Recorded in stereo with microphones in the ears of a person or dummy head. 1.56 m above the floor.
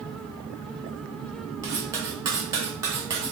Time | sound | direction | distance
1.6 | cutlery clinking | 15° right (ahead or behind) | 0.7 m